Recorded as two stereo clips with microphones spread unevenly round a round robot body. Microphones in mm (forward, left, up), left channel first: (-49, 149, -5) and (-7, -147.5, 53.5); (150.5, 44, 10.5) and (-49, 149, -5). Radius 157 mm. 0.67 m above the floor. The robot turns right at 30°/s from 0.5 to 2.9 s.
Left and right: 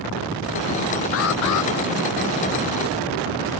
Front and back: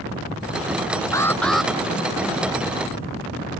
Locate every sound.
1.1 s an alarm: 50° left; by 1.7 s 65° left